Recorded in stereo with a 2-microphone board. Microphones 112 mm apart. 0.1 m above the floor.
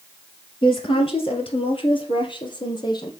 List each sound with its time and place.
0.6 s a woman speaking: 50° left (ahead or behind), 2 m; by 3.1 s 40° left (ahead or behind), 3 m